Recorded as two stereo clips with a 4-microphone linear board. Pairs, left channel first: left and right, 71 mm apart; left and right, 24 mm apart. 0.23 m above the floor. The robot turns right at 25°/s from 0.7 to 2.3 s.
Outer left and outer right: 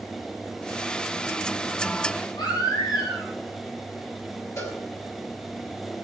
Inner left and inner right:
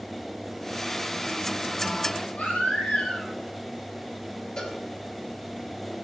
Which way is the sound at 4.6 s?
35° left (ahead or behind).